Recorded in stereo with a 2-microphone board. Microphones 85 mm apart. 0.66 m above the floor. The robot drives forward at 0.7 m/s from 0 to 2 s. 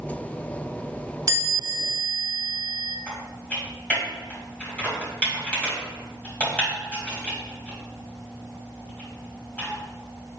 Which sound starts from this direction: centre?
Typing on a keyboard, at 3.1 s.